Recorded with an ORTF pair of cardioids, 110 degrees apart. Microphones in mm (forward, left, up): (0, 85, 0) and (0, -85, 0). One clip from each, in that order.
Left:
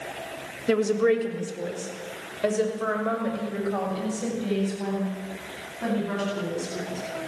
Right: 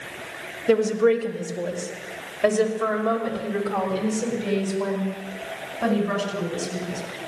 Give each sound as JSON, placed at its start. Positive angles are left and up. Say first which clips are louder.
{"t": 0.7, "sound": "a woman speaking", "louder": "right 3 dB", "azimuth_deg": 20, "distance_m": 3.0}